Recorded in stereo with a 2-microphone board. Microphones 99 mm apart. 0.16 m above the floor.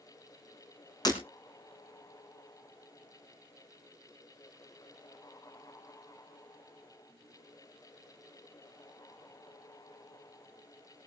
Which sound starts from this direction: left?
Breaking glass, at 1.1 s.